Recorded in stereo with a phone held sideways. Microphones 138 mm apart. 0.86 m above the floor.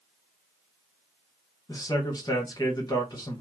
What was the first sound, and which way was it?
A man speaking, 30° left (ahead or behind).